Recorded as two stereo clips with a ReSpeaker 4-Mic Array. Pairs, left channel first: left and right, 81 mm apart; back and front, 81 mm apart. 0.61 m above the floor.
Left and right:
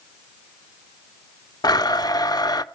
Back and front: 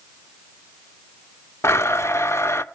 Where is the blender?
125° left, 0.5 m.